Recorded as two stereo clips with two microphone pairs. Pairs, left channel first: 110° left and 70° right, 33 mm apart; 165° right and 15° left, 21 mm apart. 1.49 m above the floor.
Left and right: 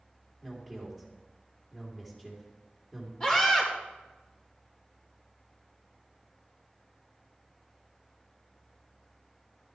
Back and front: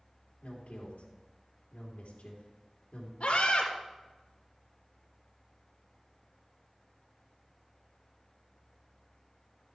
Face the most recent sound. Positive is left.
turn(degrees=175)